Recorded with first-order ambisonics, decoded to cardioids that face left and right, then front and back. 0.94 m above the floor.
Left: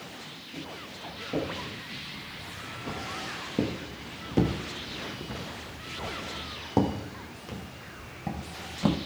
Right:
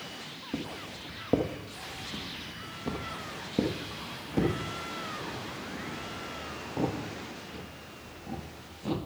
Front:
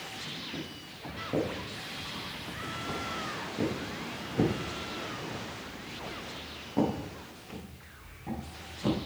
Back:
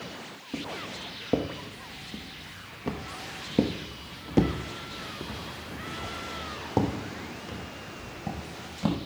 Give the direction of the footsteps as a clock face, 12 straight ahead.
4 o'clock.